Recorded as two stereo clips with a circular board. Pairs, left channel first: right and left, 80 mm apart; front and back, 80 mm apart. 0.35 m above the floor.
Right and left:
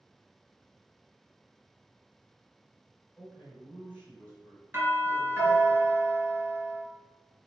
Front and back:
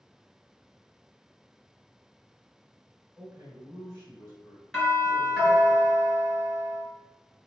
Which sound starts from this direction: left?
A doorbell, at 4.7 s.